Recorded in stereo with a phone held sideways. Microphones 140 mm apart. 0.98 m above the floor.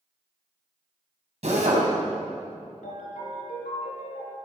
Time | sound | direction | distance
1.4 | a drill | 55° right (ahead or behind) | 4 m
2.8 | a ringtone | 85° left | 4.5 m